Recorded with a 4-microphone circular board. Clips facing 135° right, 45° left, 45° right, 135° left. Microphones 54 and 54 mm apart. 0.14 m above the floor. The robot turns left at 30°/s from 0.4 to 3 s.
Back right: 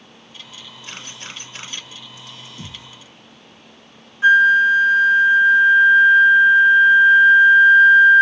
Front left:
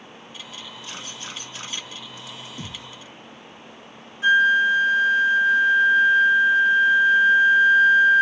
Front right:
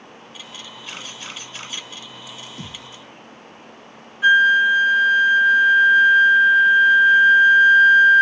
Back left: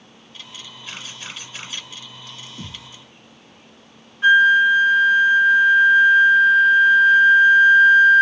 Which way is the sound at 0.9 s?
140° right.